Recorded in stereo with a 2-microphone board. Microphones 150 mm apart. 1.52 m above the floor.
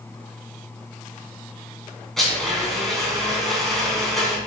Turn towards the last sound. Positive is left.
turn(degrees=0)  # may be behind; listen again after turning